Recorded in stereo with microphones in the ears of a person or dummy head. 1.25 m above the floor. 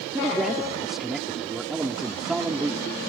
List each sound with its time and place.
0.1 s a man speaking: centre (ahead or behind)